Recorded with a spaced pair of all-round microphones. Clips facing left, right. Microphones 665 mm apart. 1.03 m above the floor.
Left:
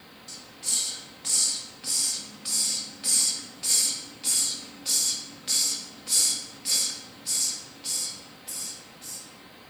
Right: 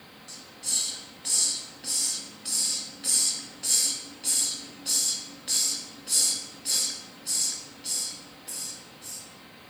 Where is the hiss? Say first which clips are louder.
Left 1 dB; 35° left (ahead or behind), 1.0 m.